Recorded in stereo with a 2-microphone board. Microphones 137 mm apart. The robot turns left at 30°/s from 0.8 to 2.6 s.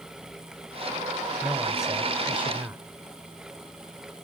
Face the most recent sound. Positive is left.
turn(degrees=-15)  # may be behind; listen again after turning